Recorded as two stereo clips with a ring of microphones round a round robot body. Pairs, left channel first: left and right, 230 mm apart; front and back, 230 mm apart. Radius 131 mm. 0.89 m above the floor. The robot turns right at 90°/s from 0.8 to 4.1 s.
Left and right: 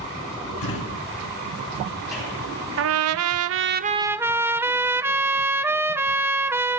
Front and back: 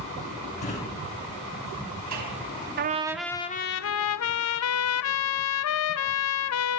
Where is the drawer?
60° left, 5 m; by 2.5 s 150° right, 5 m.